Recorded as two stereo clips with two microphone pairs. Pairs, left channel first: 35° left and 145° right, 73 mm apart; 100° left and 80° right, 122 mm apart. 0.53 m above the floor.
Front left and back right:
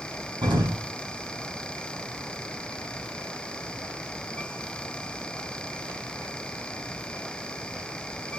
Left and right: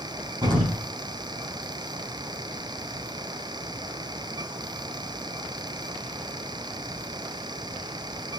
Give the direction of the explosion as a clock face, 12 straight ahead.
4 o'clock.